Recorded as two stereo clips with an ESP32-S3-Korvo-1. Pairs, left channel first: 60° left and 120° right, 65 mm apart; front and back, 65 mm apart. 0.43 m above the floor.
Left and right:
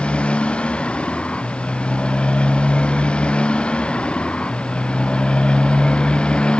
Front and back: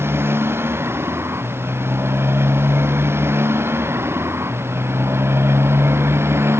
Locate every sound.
0.0 s a motorcycle: 130° left; by 6.6 s 135° left